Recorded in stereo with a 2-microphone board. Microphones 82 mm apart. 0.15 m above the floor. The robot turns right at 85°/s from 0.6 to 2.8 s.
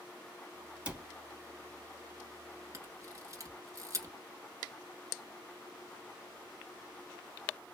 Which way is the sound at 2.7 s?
40° right (ahead or behind).